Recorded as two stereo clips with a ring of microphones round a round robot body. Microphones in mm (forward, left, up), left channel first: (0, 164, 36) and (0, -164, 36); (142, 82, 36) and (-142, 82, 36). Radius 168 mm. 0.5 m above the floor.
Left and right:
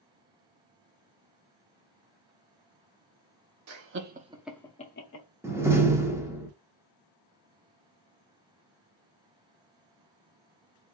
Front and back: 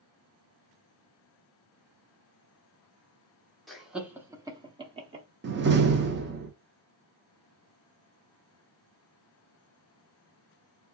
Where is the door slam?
165° right, 0.7 m.